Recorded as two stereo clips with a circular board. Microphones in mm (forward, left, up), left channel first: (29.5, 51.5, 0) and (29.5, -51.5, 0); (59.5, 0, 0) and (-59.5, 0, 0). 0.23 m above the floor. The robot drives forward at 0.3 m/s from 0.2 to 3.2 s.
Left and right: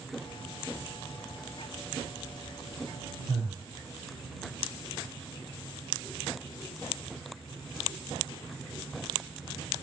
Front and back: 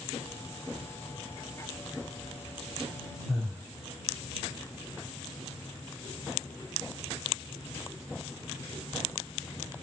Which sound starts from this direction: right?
Breathing, at 3.3 s.